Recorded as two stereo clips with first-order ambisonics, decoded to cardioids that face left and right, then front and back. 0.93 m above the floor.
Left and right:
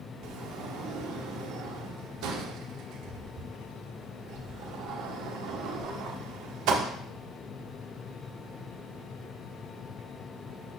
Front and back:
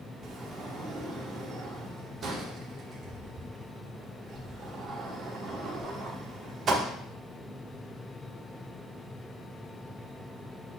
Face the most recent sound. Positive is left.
turn(degrees=-120)